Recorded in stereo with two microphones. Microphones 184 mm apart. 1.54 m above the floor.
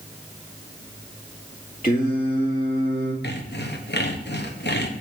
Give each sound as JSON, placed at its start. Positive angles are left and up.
{"t": 1.8, "sound": "singing", "side_deg": 50, "distance_m": 2.0}
{"t": 3.2, "sound": "sawing", "side_deg": 65, "distance_m": 1.2}